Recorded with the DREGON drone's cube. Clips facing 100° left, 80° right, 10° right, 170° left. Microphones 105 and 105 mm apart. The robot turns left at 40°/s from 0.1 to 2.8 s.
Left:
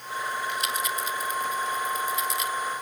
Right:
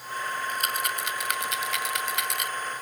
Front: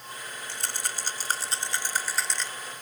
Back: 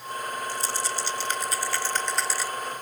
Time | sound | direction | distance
0.5 | a rattle | 30° right | ?